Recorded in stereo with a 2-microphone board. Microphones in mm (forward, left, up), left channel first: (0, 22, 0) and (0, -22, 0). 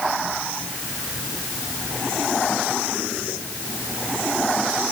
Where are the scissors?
I don't hear scissors.